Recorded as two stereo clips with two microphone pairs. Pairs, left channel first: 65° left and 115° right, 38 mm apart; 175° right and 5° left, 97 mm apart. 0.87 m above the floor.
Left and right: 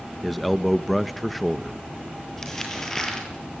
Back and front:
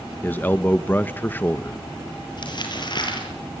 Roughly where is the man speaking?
Behind left.